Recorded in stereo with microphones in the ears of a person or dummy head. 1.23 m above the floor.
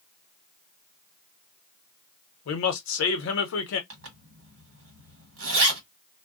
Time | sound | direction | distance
2.5 | a man speaking | 70° left (ahead or behind) | 0.9 m
3.9 | a zipper | 75° right (ahead or behind) | 1.3 m